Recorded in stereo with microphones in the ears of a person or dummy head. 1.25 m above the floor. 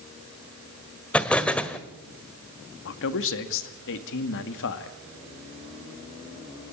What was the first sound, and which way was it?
An explosion, 5° left (ahead or behind).